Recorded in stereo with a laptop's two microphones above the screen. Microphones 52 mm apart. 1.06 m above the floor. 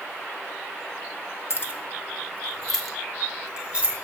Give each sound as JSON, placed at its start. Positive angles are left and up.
{"t": 1.5, "sound": "keys jangling", "side_deg": 55, "distance_m": 0.9}